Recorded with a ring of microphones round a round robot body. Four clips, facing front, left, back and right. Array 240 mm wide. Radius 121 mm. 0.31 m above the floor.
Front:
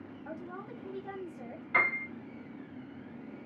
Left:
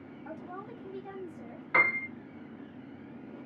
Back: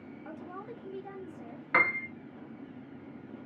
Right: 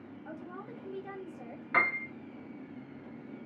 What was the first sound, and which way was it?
A woman speaking, 175° left.